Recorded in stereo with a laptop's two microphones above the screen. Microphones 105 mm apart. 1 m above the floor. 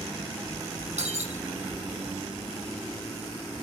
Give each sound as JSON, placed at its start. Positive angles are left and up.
{"t": 1.0, "sound": "breaking glass", "side_deg": -80, "distance_m": 6.5}